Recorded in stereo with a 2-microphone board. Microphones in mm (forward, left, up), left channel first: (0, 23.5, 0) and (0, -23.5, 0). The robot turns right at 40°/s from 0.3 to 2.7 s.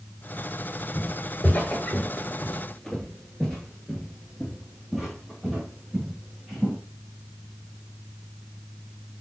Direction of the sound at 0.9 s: 40° left (ahead or behind).